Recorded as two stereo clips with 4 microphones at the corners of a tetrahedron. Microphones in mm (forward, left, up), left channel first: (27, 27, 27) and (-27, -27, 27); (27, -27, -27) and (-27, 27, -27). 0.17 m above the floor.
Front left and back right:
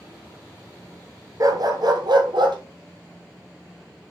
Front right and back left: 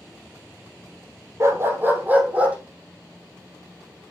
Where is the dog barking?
175° right, 1.5 m; by 2.6 s 150° right, 2.5 m.